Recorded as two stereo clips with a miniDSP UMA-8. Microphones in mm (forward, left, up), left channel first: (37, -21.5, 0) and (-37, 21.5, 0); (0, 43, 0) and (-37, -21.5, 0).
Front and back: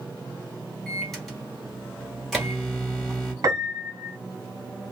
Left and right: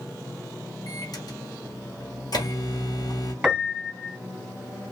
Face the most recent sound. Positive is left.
turn(degrees=160)